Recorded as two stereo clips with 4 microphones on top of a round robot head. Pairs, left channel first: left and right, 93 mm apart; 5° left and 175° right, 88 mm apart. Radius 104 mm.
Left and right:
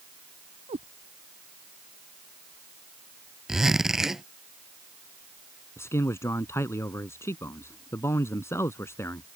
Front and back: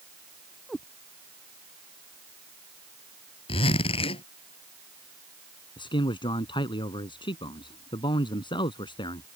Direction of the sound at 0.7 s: 85° right.